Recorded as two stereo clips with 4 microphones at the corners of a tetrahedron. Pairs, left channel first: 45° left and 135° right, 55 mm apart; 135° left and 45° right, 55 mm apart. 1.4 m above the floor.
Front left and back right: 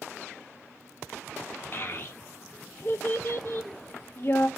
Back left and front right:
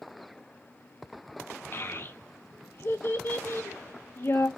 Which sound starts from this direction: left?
A child speaking, at 1.7 s.